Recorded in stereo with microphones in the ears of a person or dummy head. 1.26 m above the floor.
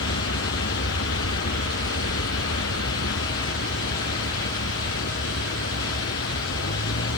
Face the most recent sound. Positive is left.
turn(degrees=60)  # may be behind; listen again after turning